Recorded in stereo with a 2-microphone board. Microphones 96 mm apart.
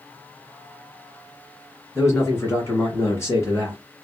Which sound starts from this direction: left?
A man speaking, at 1.9 s.